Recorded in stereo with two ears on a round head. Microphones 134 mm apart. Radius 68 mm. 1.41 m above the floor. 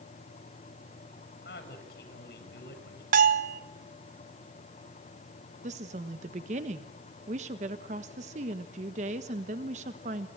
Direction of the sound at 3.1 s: 55° right (ahead or behind).